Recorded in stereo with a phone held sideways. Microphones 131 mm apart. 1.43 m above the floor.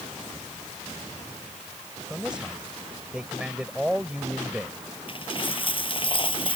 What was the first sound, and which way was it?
A man speaking, 5° right (ahead or behind).